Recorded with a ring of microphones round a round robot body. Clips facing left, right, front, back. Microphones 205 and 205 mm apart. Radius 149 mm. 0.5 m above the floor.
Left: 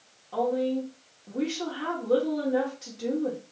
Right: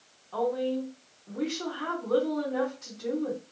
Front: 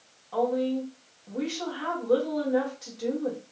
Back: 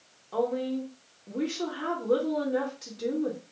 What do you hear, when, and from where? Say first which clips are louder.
0.3 s a woman speaking: left 2 dB, front 2 dB; 135° left, 1.5 m